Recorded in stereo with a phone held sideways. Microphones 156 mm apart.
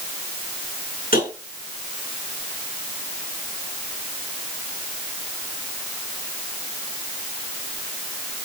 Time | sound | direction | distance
1.1 | tapping | 60° left (ahead or behind) | 6.5 m